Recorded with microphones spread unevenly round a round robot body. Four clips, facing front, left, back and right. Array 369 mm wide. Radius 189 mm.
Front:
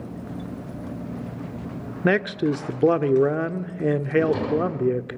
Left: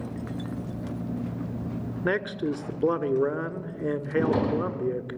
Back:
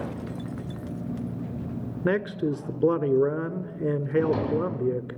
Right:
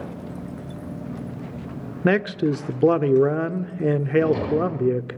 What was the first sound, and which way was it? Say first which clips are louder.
A man speaking: right 7 dB, front 4 dB; 70° right.